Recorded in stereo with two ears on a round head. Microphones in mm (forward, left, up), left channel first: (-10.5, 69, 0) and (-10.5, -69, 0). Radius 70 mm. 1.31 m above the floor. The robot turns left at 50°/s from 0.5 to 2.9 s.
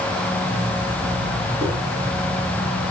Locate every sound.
1.6 s dishes clattering: 5° left (ahead or behind), 8 m; by 1.7 s centre (ahead or behind), 8 m